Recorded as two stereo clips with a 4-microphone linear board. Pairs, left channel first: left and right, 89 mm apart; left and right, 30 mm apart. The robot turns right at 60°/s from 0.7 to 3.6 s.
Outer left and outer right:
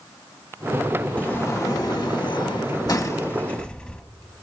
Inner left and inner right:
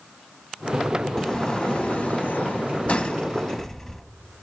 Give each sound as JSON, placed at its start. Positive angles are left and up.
{"t": 1.2, "sound": "a sliding door", "azimuth_deg": 20, "distance_m": 0.9}